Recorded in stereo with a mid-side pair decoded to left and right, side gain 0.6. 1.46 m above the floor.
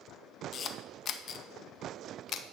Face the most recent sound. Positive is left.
turn(degrees=45)